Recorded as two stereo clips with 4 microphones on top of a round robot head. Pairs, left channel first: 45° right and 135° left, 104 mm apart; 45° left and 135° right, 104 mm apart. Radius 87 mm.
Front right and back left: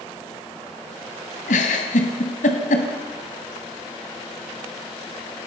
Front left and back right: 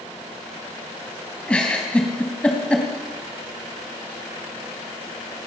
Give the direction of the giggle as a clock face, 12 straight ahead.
1 o'clock.